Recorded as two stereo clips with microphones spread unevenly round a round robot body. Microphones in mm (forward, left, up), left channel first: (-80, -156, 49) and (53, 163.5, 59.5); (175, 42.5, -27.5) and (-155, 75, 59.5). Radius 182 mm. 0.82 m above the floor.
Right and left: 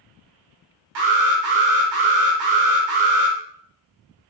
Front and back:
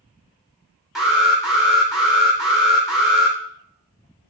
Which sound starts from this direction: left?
An alarm, at 0.9 s.